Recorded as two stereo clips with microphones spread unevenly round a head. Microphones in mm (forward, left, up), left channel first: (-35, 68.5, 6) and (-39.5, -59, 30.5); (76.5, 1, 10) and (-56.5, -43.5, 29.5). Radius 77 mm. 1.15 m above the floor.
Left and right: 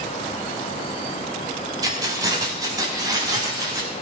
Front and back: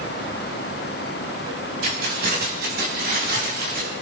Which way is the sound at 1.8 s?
150° right.